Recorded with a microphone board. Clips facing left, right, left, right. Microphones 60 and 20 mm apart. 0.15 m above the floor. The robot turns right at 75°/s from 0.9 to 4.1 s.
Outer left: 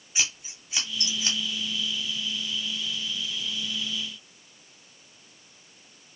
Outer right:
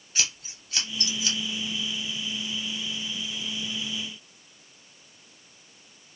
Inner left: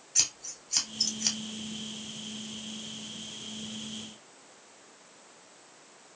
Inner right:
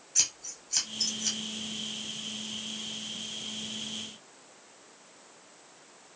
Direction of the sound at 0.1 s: 10° left (ahead or behind).